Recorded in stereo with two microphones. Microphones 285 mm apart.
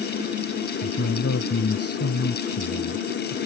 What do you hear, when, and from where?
0.8 s a man speaking: 55° left (ahead or behind)